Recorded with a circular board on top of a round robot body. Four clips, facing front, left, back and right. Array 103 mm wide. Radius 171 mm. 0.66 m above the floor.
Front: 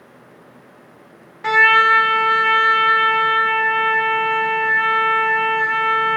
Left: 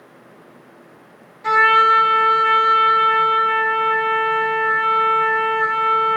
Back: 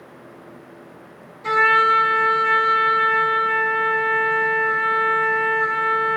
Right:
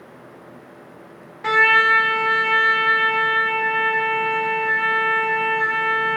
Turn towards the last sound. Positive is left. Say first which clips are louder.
# left 3 dB, front 2 dB
turn(degrees=-35)